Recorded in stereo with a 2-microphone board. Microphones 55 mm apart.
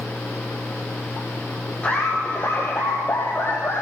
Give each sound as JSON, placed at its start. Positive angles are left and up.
{"t": 1.8, "sound": "laughter", "side_deg": 25, "distance_m": 5.0}